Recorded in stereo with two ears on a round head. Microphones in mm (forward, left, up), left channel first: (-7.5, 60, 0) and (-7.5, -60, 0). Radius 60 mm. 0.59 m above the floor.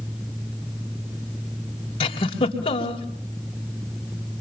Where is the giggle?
40° left (ahead or behind), 3.5 m.